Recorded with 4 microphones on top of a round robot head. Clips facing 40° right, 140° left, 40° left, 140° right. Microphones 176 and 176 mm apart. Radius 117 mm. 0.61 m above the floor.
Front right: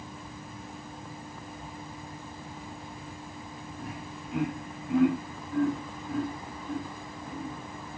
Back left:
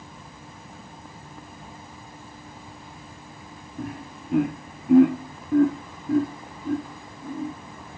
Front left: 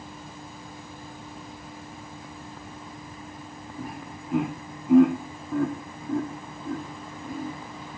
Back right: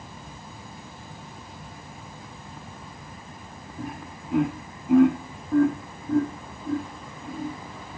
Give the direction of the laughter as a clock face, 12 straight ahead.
8 o'clock.